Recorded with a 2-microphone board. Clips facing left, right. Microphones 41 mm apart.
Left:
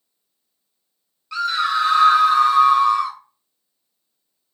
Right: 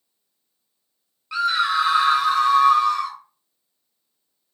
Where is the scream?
20° right (ahead or behind), 1.0 m; by 3.2 s 10° left (ahead or behind), 1.3 m.